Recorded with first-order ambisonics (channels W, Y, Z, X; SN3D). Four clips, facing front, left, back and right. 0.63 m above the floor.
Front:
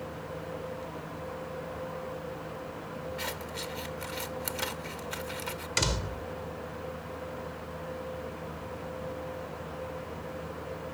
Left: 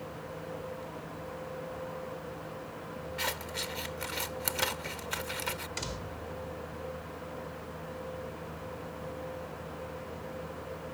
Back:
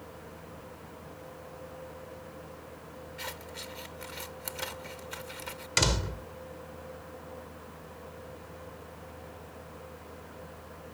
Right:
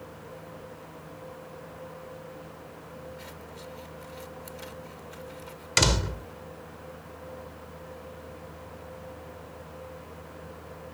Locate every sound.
3.2 s scissors: 75° left
5.8 s a door slam: 100° right